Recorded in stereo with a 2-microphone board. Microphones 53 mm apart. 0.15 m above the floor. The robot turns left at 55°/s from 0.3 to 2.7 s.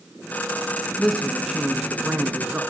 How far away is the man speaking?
About 1.2 m.